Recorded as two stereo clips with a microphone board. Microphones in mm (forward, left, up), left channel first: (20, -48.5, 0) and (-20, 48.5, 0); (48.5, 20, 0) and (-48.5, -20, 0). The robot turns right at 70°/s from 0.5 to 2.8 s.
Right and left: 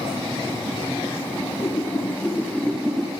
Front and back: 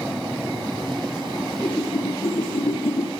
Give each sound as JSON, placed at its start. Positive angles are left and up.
{"t": 1.4, "sound": "a whoosh", "azimuth_deg": -75, "distance_m": 3.5}